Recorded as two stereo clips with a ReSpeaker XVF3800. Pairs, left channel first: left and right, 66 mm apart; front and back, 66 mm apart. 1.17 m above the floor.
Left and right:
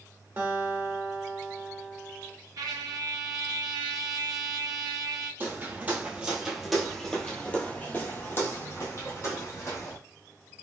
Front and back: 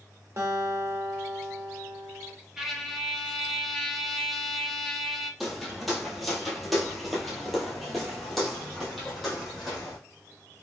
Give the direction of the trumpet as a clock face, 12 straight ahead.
3 o'clock.